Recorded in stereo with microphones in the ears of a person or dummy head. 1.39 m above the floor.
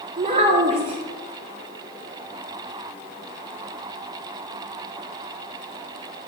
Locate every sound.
0.2 s a child speaking: 30° right (ahead or behind), 0.6 m